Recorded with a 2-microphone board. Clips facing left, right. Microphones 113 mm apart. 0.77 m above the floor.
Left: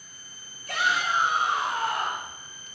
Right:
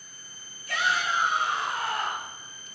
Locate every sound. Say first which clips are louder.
0.7 s a shout: left 1 dB; 60° left (ahead or behind), 2 m